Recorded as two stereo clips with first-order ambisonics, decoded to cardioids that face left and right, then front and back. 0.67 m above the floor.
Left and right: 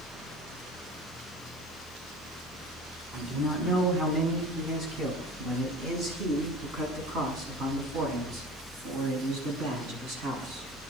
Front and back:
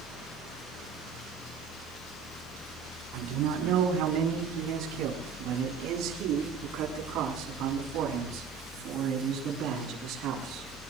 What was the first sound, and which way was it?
A man speaking, 160° right.